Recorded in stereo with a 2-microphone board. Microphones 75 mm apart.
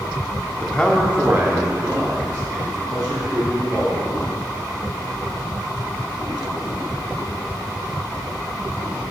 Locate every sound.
0.6 s a man speaking: 25° left (ahead or behind), 0.8 m; by 4.1 s 65° right (ahead or behind), 3.5 m